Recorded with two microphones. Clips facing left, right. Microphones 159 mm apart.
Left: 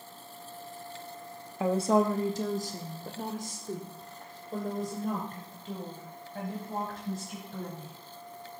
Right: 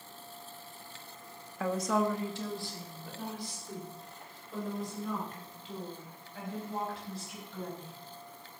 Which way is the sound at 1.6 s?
20° left (ahead or behind).